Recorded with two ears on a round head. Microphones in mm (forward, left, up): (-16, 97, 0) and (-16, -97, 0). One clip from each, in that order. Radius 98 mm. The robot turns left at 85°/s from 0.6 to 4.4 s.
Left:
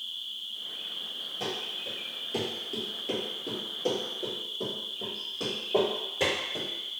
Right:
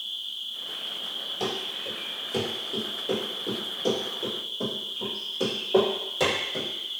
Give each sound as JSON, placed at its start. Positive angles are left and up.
{"t": 0.0, "sound": "an insect", "azimuth_deg": -125, "distance_m": 1.1}
{"t": 1.4, "sound": "running footsteps", "side_deg": -25, "distance_m": 1.4}